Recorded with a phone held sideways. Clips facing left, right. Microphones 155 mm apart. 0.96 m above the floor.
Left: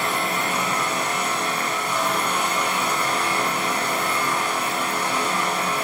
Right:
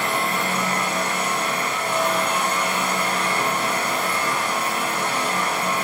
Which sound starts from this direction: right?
A fan, at 0.0 s.